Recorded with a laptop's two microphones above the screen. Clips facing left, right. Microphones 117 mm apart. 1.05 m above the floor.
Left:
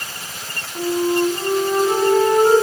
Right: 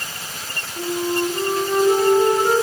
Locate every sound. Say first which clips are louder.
0.8 s a flute: left 4 dB; 45° left (ahead or behind), 8 m